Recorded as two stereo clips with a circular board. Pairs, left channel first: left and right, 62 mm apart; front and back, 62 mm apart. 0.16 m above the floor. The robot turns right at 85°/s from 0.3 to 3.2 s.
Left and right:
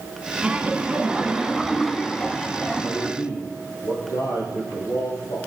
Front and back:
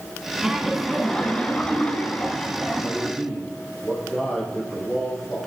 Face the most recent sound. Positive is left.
turn(degrees=80)